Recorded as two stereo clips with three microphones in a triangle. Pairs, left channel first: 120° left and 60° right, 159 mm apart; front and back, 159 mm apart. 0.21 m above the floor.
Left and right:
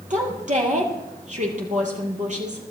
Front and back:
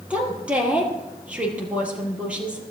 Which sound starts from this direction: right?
A woman speaking, at 0.1 s.